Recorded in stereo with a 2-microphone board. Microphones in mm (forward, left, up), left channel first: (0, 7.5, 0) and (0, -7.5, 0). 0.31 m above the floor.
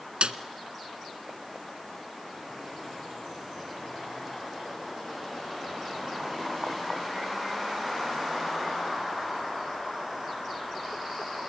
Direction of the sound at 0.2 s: 80° right.